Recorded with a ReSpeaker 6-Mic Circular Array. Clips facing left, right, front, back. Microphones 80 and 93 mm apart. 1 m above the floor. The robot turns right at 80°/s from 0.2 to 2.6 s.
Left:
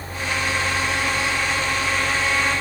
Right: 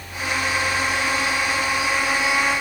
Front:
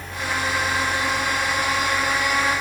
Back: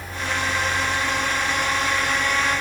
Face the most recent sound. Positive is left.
No sound to turn to.